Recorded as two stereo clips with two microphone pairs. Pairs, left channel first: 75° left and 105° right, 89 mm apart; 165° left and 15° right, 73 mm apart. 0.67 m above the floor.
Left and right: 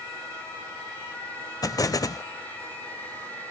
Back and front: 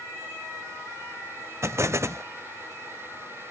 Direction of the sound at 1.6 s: 30° left.